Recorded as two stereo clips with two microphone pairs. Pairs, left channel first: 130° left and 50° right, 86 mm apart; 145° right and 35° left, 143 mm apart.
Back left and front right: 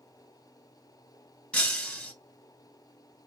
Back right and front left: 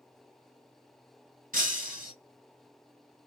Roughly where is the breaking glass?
Ahead left.